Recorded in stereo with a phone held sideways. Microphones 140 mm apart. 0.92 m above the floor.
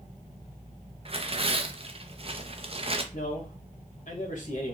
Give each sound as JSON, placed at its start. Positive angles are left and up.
{"t": 1.1, "sound": "tearing paper", "side_deg": -45, "distance_m": 0.6}
{"t": 3.1, "sound": "a man speaking", "side_deg": 65, "distance_m": 0.9}